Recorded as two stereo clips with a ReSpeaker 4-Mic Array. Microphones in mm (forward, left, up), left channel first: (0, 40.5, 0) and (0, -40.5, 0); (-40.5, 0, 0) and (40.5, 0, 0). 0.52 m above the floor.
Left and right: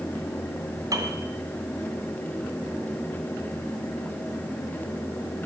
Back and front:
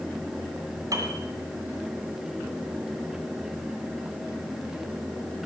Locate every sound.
0.9 s a piano: 45° right, 2 m